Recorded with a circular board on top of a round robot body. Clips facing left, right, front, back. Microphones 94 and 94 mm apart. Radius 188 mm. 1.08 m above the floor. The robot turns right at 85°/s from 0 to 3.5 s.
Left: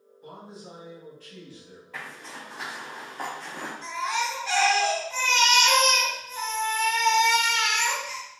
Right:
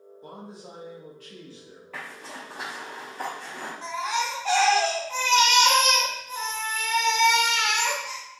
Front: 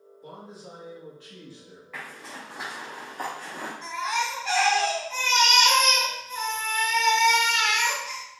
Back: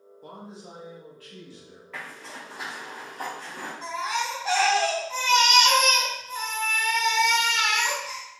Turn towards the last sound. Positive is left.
turn(degrees=-125)